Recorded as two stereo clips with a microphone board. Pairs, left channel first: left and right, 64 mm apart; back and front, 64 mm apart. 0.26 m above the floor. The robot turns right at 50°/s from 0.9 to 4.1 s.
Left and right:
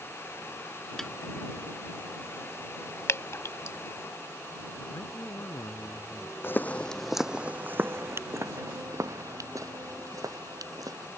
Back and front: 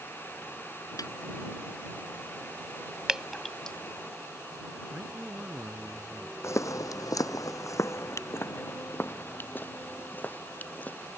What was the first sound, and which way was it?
A snare drum, 175° left.